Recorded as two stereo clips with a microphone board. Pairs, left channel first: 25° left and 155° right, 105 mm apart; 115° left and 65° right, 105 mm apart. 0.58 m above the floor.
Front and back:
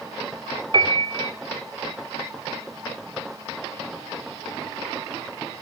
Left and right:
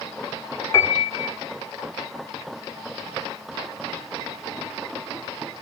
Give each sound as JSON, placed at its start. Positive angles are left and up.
{"t": 0.7, "sound": "a piano", "azimuth_deg": 170, "distance_m": 1.7}